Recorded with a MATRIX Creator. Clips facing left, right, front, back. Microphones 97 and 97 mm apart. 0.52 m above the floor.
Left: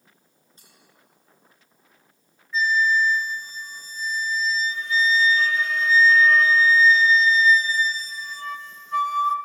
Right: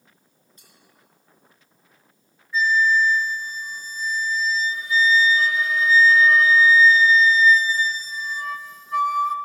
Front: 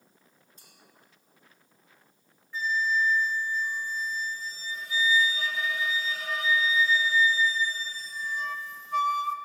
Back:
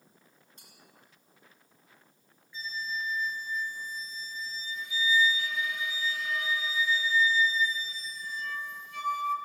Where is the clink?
150° left, 4.5 m.